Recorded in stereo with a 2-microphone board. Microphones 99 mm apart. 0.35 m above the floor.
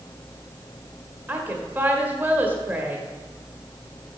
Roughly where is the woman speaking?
Centre.